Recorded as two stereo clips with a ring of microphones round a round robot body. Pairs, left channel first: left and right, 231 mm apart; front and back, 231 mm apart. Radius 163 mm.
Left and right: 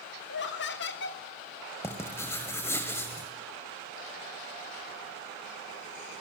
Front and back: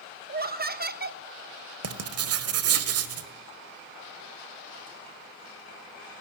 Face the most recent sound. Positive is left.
turn(degrees=170)